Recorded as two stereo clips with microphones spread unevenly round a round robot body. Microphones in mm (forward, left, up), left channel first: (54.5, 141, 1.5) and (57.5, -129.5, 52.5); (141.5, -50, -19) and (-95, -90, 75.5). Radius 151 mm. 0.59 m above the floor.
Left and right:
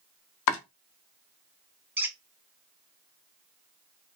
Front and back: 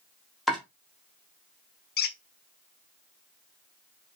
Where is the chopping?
90° left, 0.7 m.